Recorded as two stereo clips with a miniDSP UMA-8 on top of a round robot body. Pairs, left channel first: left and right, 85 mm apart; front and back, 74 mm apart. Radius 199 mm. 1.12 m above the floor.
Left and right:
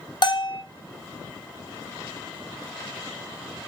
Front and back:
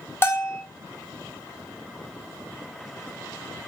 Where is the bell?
60° left, 1.1 m.